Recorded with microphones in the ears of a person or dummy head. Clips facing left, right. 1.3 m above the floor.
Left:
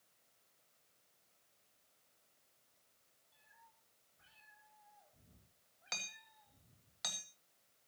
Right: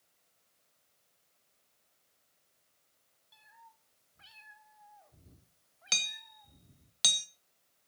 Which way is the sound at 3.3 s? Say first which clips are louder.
Right 9 dB; 75° right (ahead or behind).